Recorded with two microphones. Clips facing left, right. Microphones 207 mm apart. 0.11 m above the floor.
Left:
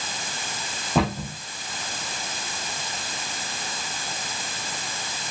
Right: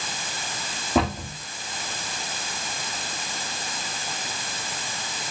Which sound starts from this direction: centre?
A cupboard door, at 0.9 s.